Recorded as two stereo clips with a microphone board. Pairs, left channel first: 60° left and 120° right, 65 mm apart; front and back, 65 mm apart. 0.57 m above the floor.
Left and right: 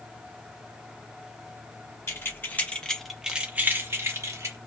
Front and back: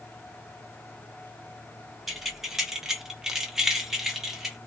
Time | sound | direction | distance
2.1 | keys jangling | 95° left | 0.8 m